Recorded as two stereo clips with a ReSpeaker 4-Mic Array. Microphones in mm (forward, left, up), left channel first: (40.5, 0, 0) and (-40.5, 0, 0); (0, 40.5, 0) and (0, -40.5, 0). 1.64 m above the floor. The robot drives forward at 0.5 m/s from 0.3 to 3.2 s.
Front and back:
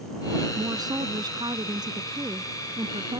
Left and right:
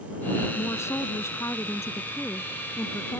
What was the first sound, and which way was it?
A woman speaking, 145° left.